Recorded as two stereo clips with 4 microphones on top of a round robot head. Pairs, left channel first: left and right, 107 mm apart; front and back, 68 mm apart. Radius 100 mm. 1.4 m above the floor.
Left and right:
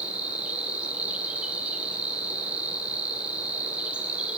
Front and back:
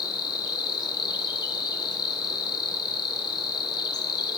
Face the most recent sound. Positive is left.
turn(degrees=-10)